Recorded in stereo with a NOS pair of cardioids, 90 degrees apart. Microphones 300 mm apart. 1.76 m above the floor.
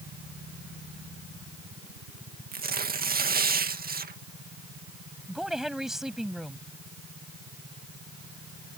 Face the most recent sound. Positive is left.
turn(degrees=0)